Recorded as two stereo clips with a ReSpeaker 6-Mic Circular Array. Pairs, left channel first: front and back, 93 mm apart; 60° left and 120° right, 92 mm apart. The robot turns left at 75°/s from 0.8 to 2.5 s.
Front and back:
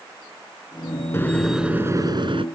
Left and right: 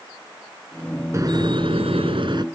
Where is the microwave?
65° right; by 2.5 s 160° right.